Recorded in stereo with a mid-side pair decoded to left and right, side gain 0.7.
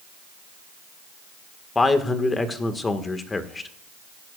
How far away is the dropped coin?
I don't hear a dropped coin.